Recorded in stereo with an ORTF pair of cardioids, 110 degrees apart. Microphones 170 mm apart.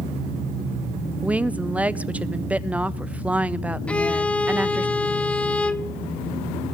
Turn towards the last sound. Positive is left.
turn(degrees=5)